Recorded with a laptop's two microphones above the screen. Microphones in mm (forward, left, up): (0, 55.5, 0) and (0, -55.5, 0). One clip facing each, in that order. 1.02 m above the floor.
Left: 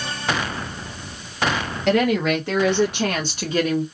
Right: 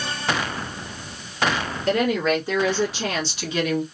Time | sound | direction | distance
1.9 | a woman speaking | 75° left (ahead or behind) | 1.5 m